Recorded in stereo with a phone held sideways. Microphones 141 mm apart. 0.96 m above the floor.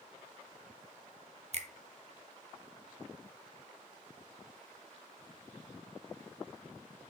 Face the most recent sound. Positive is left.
turn(degrees=-50)  # may be behind; listen again after turning